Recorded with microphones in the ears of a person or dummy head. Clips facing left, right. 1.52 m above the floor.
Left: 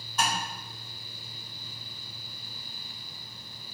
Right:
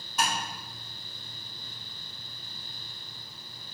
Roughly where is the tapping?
Centre.